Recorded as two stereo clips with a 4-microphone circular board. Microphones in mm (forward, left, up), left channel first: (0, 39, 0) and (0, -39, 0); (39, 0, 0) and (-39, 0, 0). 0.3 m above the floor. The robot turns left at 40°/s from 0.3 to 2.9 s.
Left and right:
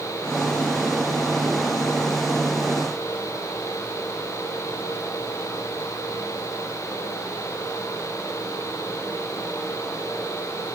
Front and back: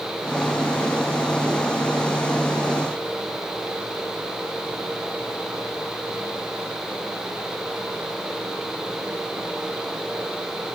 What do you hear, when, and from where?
Only background noise.